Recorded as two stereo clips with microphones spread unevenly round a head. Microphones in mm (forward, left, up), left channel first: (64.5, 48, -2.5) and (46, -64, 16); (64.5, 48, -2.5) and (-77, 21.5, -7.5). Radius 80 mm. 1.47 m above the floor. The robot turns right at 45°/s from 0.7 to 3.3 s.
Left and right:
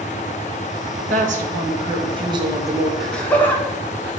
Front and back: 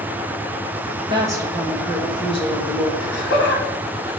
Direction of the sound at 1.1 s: 105° right.